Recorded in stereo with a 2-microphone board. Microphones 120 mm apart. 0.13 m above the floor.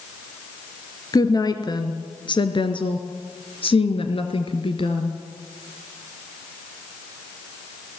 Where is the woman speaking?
35° left (ahead or behind), 2.5 m; by 5.2 s 50° left (ahead or behind), 2.5 m.